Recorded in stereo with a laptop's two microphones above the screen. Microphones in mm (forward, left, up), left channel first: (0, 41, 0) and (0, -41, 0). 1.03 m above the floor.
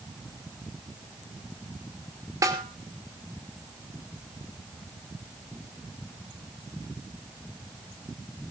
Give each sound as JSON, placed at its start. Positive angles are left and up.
{"t": 2.4, "sound": "a snare drum", "side_deg": -45, "distance_m": 3.0}